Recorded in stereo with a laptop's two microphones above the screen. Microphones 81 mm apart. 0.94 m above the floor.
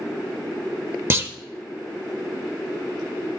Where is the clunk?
30° right (ahead or behind), 0.6 m.